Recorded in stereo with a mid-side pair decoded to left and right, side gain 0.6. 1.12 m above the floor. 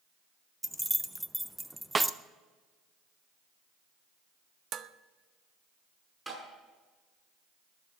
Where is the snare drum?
20° right, 0.6 m.